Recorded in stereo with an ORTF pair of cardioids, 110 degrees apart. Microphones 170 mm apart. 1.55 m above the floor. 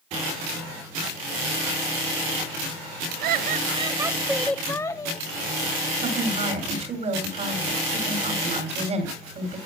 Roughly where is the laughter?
Ahead right.